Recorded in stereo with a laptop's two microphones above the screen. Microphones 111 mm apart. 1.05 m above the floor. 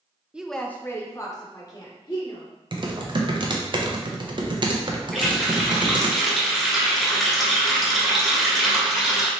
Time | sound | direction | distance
0.3 | a woman speaking | 10° right (ahead or behind) | 0.6 m
2.7 | typing on a keyboard | 45° right (ahead or behind) | 0.5 m
5.1 | a running tap | centre (ahead or behind) | 1.4 m